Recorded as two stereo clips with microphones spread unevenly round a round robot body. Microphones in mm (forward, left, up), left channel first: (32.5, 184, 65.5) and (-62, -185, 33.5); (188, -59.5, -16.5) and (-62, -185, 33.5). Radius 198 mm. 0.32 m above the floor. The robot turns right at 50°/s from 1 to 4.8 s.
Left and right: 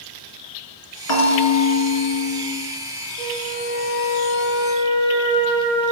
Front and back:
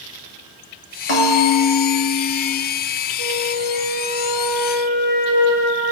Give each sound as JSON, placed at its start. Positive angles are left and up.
{"t": 1.1, "sound": "a bell", "azimuth_deg": 25, "distance_m": 1.8}
{"t": 3.2, "sound": "a flute", "azimuth_deg": 170, "distance_m": 2.0}